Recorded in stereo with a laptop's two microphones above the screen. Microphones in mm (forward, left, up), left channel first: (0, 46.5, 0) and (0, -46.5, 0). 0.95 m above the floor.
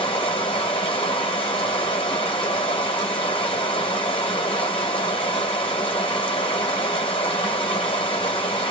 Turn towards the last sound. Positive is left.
turn(degrees=75)  # may be behind; listen again after turning